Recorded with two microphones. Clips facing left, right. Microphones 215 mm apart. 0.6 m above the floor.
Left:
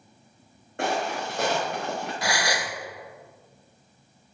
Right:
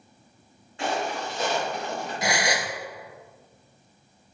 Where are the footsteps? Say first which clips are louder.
Left 1 dB; 55° left (ahead or behind), 2 m; by 2.1 s 65° left (ahead or behind), 3.5 m.